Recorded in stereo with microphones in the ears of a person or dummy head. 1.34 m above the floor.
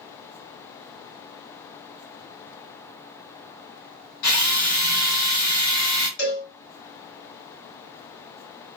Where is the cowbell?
55° left (ahead or behind), 2 m.